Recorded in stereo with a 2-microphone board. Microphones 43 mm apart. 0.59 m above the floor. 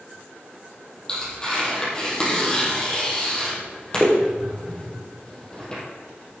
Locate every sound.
1.1 s tearing paper: 15° left (ahead or behind), 5.5 m